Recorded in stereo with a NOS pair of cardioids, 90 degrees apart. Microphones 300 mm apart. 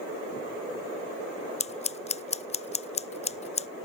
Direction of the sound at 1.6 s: 25° left.